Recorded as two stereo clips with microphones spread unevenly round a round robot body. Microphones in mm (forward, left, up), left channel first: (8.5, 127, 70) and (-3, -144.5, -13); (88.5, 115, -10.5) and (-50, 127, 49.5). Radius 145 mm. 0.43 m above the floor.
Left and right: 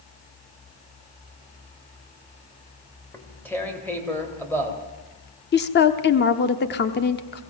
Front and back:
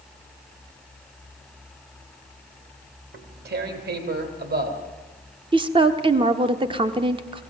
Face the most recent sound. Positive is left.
turn(degrees=115)